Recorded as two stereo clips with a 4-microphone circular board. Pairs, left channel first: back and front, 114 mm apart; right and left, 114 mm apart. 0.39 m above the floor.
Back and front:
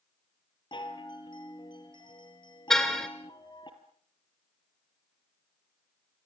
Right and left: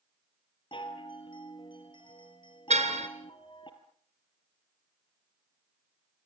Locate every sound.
0.7 s a chime: 135° right, 3 m
2.7 s a car horn: 95° left, 2.5 m